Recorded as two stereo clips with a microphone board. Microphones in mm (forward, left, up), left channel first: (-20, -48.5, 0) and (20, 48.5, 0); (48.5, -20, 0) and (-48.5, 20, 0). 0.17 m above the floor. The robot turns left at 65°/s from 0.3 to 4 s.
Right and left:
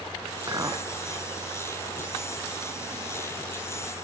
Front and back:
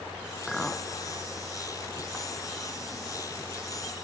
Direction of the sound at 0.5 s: 60° left.